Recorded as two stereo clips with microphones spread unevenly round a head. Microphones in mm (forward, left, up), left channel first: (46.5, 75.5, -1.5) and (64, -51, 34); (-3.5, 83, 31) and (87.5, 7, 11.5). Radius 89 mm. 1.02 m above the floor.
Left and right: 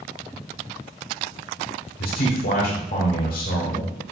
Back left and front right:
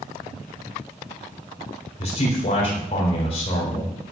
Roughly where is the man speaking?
Left.